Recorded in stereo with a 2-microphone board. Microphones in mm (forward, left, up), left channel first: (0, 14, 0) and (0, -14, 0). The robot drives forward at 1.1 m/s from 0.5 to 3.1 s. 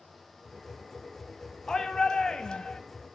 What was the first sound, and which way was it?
A shout, 20° left (ahead or behind).